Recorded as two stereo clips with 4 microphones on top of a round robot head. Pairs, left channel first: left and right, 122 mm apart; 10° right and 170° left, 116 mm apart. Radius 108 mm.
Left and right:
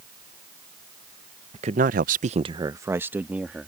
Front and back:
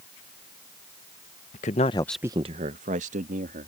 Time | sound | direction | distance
1.5 | a man speaking | 40° right | ?